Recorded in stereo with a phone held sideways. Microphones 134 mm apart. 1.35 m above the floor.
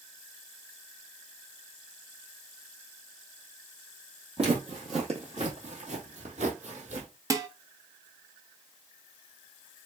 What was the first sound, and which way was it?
Footsteps, 45° right (ahead or behind).